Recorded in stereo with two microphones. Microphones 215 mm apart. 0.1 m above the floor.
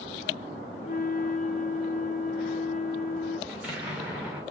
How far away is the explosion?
About 7.5 m.